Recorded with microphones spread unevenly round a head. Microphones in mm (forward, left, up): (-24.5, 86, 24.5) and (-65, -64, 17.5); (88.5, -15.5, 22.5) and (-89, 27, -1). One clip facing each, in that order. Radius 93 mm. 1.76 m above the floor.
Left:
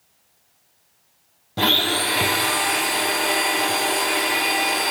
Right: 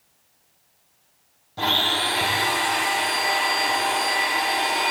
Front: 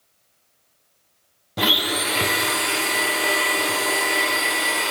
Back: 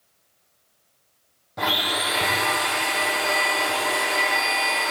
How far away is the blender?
About 1.3 m.